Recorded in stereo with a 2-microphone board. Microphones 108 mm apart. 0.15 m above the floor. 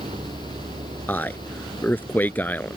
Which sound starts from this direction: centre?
A man speaking, at 1.1 s.